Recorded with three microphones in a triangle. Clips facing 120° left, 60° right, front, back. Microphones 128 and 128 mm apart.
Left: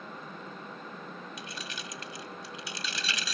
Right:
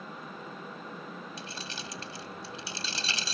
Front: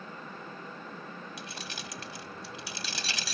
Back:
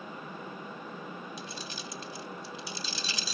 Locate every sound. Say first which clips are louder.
1.4 s keys jangling: even, back 1 dB; 5° right